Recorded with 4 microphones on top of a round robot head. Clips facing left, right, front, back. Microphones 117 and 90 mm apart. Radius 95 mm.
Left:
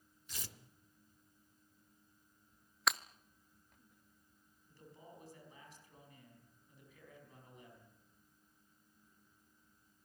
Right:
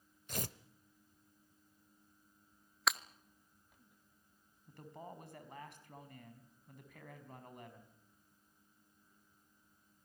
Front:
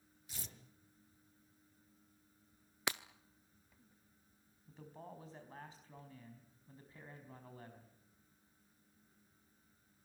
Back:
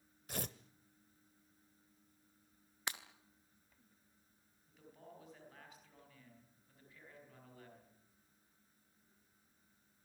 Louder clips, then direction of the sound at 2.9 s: Even, front 4 dB; straight ahead.